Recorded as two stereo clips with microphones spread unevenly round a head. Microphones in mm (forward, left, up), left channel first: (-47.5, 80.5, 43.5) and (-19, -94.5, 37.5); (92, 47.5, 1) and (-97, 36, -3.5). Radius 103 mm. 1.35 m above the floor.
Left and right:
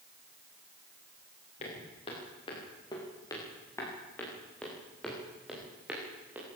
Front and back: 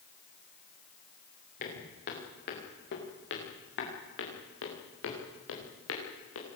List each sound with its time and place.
1.6 s footsteps: 40° left, 8.5 m; by 6.5 s straight ahead, 9 m